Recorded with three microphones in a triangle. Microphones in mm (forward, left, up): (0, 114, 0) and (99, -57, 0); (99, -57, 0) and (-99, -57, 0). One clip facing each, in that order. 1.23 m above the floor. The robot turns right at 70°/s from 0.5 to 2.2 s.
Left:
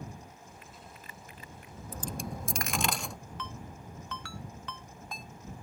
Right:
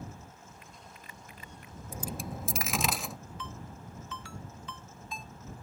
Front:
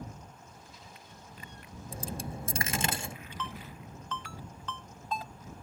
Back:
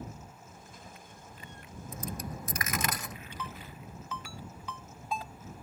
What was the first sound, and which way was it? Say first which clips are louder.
A dropped coin: even, front 1 dB; 5° left.